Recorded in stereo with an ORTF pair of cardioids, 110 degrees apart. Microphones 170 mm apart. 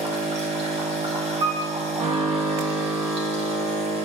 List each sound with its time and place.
0.0 s a machine running: 40° right, 2.5 m
1.4 s a piano: 40° right, 3.5 m